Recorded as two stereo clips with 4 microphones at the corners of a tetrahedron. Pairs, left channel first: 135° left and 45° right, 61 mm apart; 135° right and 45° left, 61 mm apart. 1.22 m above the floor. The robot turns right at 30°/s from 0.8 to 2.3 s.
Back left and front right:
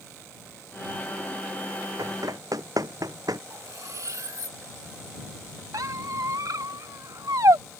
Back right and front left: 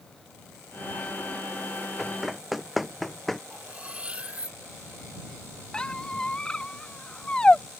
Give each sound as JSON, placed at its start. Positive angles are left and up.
{"t": 2.0, "sound": "running footsteps", "azimuth_deg": -50}
{"t": 3.5, "sound": "cutlery clinking", "azimuth_deg": -25}
{"t": 5.7, "sound": "a squeak", "azimuth_deg": -60}